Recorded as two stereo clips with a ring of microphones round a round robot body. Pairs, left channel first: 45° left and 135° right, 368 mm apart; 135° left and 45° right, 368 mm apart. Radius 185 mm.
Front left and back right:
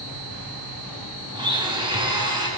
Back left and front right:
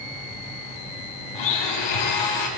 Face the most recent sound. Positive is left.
turn(degrees=145)